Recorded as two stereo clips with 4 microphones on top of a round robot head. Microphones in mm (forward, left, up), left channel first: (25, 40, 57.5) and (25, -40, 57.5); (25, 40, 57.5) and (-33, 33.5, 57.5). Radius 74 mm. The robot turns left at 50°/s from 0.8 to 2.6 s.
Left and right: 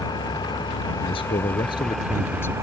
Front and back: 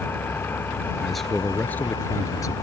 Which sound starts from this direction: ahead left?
An engine running, at 0.0 s.